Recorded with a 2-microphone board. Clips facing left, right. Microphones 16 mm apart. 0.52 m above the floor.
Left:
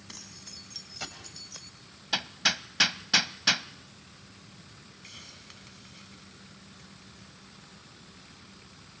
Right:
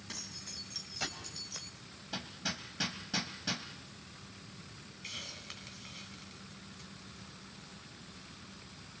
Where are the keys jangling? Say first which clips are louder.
Right 2 dB; 5° left (ahead or behind), 3.5 m; by 1.7 s 5° right (ahead or behind), 1.3 m.